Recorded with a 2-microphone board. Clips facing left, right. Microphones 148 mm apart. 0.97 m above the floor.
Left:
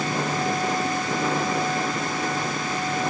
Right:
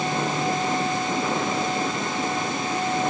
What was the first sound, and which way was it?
Only background noise.